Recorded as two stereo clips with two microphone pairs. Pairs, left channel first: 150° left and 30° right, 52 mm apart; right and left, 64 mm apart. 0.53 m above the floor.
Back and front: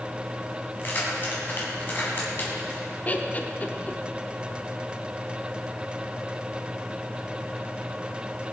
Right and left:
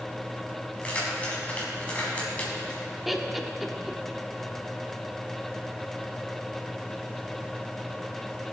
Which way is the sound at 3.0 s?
175° left.